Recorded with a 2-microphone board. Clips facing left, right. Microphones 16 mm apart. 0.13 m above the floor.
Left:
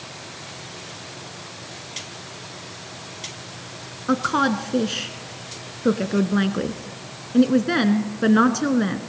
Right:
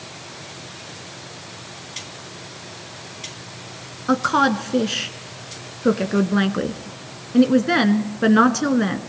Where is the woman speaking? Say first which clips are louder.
Right 3 dB; 10° right (ahead or behind), 1.3 m.